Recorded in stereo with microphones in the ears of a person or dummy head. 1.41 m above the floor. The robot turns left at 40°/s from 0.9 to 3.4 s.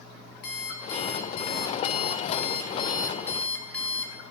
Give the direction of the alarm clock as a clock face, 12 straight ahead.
8 o'clock.